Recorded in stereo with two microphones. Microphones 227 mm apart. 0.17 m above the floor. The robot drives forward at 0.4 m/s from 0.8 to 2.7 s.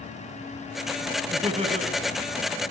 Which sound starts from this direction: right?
Laughter, at 1.3 s.